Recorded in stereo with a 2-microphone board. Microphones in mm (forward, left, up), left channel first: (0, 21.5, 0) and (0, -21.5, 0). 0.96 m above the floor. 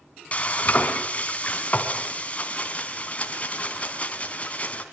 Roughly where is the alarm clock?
No alarm clock in this recording.